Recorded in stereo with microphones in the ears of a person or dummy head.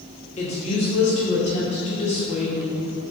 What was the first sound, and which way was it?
A woman speaking, 35° left (ahead or behind).